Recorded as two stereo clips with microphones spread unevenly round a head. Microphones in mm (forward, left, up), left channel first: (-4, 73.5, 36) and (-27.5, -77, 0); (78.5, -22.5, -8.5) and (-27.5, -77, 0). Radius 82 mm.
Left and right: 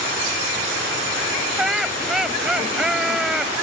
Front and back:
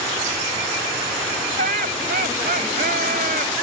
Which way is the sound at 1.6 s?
170° left.